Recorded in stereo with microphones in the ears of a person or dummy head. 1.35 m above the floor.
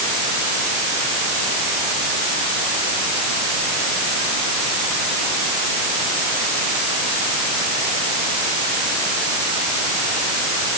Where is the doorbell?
No doorbell in this recording.